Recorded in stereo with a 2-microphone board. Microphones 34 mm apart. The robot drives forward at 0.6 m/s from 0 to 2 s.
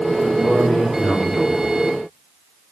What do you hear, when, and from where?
0.2 s a man speaking: 60° left (ahead or behind), 2.5 m